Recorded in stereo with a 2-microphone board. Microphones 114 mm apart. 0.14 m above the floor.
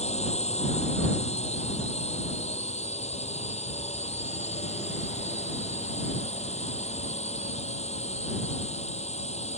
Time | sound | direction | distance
0.0 | a drone | 70° left (ahead or behind) | ?